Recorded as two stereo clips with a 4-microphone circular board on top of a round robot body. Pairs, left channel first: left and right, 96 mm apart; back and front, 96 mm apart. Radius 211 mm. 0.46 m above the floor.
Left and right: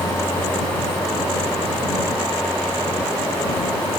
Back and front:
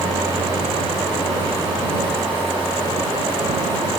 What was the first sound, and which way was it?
Only background noise.